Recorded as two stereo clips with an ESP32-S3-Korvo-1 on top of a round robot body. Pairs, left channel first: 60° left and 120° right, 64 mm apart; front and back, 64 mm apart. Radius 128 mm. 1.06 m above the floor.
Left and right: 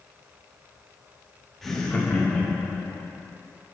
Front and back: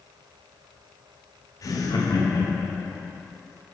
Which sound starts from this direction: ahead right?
Laughter, at 1.6 s.